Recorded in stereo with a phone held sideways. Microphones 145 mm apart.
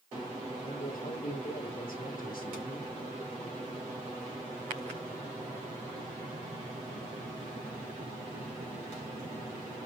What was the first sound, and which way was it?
A man speaking, 70° left (ahead or behind).